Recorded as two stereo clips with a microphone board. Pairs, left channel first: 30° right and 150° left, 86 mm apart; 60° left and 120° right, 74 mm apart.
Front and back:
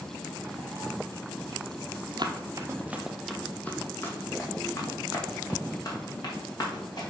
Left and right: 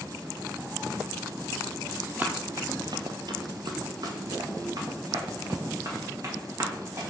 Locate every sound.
2.2 s running footsteps: 175° left, 0.8 m; by 7.1 s 75° right, 3.5 m